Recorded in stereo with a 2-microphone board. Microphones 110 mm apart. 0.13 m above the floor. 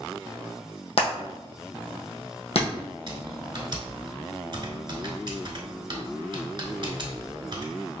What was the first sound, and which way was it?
Hammering, 65° left (ahead or behind).